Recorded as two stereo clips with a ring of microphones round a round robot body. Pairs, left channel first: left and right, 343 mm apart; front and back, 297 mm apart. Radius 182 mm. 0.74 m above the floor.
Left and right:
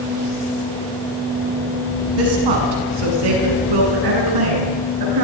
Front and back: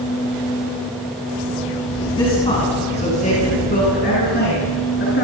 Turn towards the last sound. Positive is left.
turn(degrees=-60)